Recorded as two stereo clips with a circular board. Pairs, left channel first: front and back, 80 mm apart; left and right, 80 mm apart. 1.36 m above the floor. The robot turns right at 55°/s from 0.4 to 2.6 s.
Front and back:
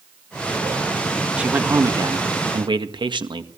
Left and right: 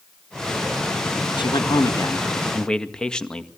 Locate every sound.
1.4 s a man speaking: 105° left, 1.8 m; by 3.5 s 170° left, 1.8 m